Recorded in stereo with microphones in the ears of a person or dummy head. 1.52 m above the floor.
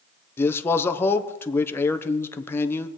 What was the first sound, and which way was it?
A man speaking, 10° left (ahead or behind).